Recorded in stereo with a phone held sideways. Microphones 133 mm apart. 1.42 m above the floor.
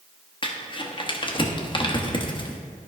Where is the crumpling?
35° left (ahead or behind), 1.0 m.